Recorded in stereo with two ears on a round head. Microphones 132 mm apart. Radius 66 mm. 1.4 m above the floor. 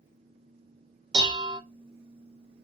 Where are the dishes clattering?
30° right (ahead or behind), 0.7 m.